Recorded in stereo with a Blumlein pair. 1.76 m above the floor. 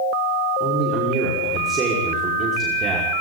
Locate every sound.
0.6 s a man speaking: 25° right, 5 m